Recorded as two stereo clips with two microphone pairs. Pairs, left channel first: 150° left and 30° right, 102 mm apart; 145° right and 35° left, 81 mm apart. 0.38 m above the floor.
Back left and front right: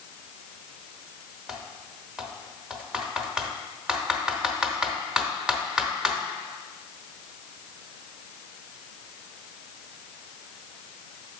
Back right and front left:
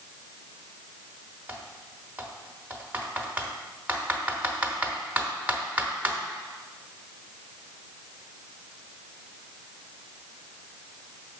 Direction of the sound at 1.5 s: 30° left.